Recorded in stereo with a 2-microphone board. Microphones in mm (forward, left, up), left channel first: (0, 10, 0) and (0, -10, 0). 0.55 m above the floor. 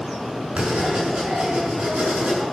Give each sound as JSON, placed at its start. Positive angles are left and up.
{"t": 0.6, "sound": "writing", "side_deg": -80, "distance_m": 6.5}